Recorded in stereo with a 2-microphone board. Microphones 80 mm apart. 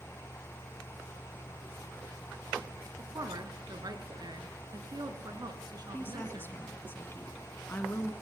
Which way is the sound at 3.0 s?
60° right (ahead or behind).